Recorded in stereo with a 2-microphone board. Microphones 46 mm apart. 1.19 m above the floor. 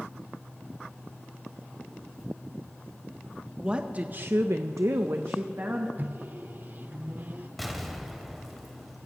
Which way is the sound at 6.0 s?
40° right (ahead or behind).